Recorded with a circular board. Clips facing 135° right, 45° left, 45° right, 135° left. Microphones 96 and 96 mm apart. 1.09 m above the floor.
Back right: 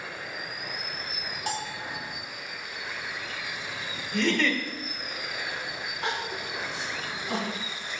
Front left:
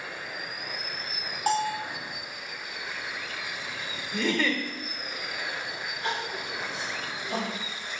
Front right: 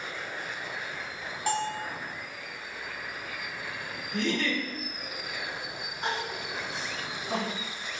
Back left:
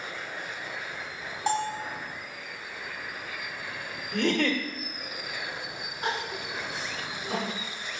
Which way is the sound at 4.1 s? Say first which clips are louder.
Back right 1 dB, back left 4 dB; 125° left.